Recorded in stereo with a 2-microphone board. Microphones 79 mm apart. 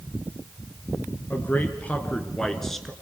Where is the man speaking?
25° left (ahead or behind), 3 m; by 2.9 s centre (ahead or behind), 3 m.